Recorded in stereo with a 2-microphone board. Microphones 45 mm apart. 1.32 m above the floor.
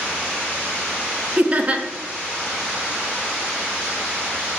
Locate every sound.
1.4 s laughter: 30° right (ahead or behind), 0.5 m